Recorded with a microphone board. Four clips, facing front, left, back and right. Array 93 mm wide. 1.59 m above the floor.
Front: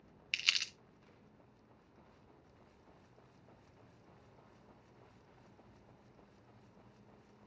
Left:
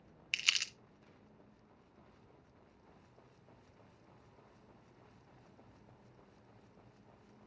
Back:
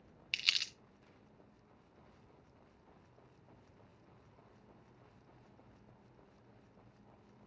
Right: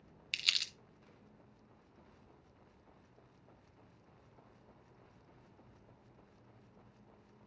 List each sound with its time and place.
0.3 s crumpling: 60° left, 0.7 m